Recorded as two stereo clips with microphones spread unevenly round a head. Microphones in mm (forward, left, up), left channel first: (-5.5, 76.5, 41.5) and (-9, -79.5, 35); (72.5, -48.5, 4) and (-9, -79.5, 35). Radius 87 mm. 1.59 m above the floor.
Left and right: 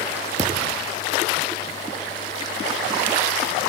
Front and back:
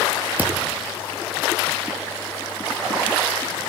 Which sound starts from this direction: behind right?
A thud, at 0.4 s.